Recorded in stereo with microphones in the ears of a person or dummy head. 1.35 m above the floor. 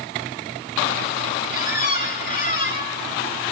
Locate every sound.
1.5 s a squeak: 45° left (ahead or behind), 1.0 m